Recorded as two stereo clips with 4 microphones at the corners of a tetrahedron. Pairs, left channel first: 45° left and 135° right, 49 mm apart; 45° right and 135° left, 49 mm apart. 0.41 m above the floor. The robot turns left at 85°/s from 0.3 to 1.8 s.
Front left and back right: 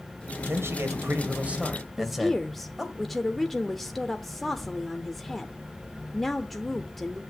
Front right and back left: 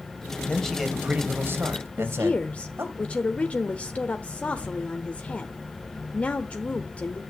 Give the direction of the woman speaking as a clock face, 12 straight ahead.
1 o'clock.